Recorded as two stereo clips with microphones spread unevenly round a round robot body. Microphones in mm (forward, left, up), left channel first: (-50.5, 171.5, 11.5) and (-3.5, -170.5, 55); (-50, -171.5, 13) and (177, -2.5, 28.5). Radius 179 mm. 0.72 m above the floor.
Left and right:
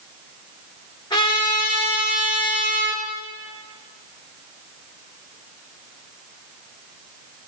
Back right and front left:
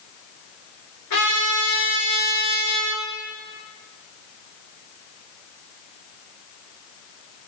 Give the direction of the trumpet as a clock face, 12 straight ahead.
6 o'clock.